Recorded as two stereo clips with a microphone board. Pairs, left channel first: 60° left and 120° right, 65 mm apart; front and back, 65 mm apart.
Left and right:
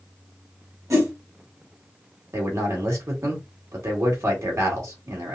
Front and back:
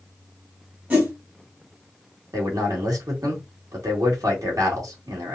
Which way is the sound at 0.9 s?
125° right.